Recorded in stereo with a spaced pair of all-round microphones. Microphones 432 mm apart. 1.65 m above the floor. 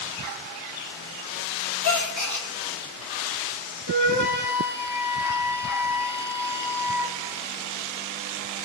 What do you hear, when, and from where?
1.8 s a gasp: 40° left (ahead or behind), 0.9 m
3.9 s a flute: 45° left (ahead or behind), 1.1 m